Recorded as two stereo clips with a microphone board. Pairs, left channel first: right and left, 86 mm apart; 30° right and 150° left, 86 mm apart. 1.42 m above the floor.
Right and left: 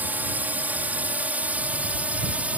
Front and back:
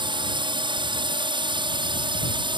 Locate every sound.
0.0 s a drone: 160° left; by 2.6 s 165° left